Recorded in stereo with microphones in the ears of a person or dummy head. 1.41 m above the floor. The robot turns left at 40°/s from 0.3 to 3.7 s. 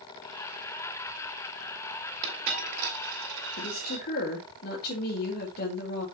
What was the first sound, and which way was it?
A dropped coin, 20° right (ahead or behind).